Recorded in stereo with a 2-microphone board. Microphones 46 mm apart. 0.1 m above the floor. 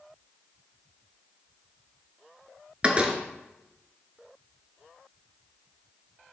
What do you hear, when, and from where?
2.8 s a door slam: 30° right (ahead or behind), 1.1 m